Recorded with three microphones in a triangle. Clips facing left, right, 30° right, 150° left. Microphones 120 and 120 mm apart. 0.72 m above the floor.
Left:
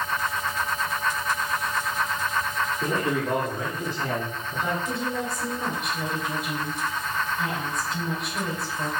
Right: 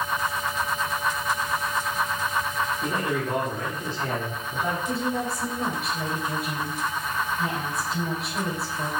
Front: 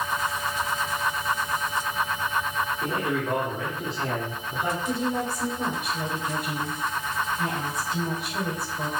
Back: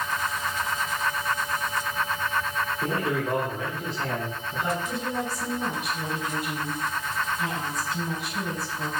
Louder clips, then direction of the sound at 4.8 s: Right 2 dB, front 3 dB; 5° right.